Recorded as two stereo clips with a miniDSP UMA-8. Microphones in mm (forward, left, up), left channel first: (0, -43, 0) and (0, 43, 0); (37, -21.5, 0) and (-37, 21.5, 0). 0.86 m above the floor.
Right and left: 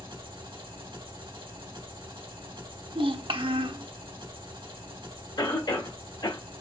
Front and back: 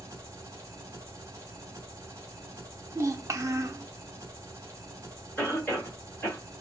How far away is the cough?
About 1.8 m.